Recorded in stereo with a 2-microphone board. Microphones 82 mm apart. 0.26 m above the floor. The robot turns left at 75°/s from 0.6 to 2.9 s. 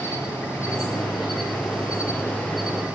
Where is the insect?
150° left, 6 m; by 3.0 s 25° right, 6 m.